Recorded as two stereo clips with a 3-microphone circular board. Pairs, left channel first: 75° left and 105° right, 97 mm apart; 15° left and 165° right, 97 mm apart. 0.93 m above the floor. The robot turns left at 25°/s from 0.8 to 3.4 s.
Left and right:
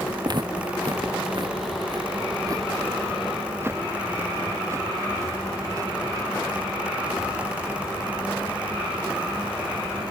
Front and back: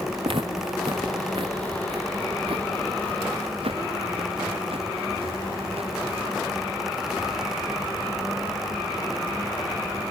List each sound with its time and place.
0.2 s footsteps: 150° right; by 6.4 s 155° right